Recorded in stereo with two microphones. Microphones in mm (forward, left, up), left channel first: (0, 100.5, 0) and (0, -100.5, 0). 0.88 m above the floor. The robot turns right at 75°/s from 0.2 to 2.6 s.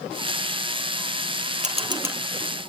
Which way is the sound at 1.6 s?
40° right (ahead or behind).